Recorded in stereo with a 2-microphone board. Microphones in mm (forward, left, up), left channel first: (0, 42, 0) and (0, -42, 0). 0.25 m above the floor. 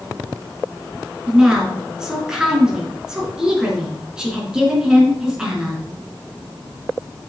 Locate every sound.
1.3 s a woman speaking: 10° right (ahead or behind), 2.5 m